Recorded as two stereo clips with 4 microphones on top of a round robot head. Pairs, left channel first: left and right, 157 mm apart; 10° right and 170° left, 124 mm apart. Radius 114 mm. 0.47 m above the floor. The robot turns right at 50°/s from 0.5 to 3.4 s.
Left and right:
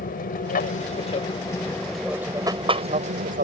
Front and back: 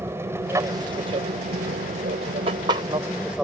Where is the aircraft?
100° left; by 3.4 s 105° right.